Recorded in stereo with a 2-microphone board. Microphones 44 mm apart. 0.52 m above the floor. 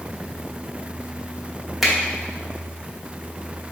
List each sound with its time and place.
1.8 s a finger snap: centre (ahead or behind), 0.9 m